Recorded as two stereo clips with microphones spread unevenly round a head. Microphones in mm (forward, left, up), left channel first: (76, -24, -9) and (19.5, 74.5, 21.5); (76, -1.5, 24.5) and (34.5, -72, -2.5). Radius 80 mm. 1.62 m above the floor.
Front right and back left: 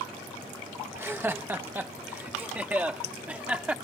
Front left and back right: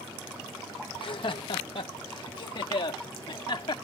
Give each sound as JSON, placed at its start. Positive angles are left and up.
{"t": 0.9, "sound": "laughter", "azimuth_deg": 50}